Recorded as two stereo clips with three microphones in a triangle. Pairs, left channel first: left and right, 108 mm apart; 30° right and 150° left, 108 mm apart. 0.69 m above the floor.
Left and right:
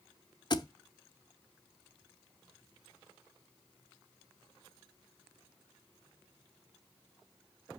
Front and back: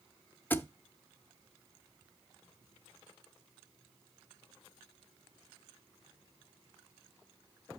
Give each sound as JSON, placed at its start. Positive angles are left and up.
{"t": 0.5, "sound": "a thud", "azimuth_deg": 40, "distance_m": 0.6}